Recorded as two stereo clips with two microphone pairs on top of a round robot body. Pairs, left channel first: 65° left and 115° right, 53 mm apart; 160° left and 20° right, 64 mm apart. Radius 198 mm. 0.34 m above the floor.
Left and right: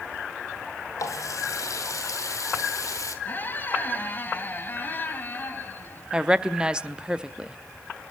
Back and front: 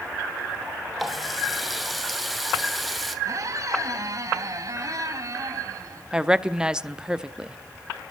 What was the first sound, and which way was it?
A running tap, 70° left.